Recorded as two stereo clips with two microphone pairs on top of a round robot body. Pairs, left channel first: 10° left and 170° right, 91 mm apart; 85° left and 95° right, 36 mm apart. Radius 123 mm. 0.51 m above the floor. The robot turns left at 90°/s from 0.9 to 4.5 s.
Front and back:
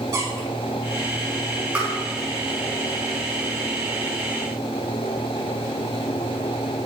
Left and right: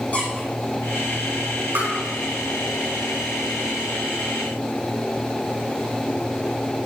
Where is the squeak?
135° left, 6.5 m.